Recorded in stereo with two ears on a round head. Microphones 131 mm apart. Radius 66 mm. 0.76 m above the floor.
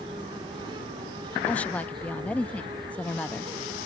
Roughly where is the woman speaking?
Centre.